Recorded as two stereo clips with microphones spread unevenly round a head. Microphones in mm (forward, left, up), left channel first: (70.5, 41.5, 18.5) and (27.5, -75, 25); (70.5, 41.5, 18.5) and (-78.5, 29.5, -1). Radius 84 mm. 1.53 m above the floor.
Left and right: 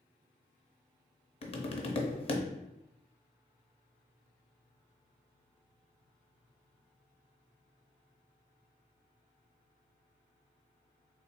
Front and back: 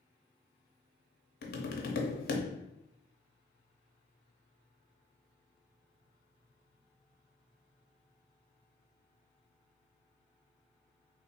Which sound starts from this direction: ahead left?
Tapping, at 1.4 s.